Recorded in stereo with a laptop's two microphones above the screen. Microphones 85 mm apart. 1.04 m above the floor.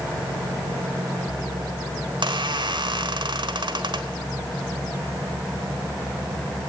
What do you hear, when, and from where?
2.0 s a squeak: 65° right (ahead or behind), 1.4 m